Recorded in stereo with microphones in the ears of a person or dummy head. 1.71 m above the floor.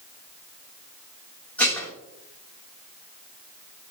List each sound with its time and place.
1.6 s dishes clattering: 10° left (ahead or behind), 3 m